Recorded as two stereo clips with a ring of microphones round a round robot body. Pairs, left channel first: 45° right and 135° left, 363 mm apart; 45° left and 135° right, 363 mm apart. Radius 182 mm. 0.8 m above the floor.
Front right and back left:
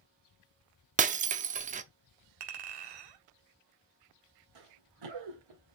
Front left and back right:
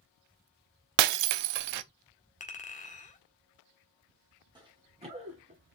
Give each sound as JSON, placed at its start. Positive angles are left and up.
{"t": 1.0, "sound": "breaking glass", "azimuth_deg": -155, "distance_m": 0.7}
{"t": 2.4, "sound": "a clink", "azimuth_deg": 115, "distance_m": 1.7}
{"t": 4.5, "sound": "running footsteps", "azimuth_deg": 145, "distance_m": 3.5}